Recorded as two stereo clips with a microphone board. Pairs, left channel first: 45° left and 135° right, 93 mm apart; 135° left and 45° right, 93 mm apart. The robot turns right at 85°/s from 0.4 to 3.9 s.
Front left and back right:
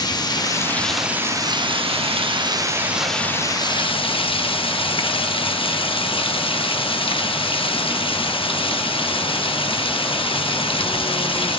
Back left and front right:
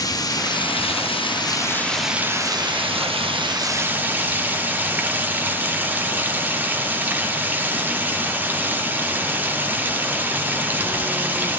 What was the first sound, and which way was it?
Running water, 90° left.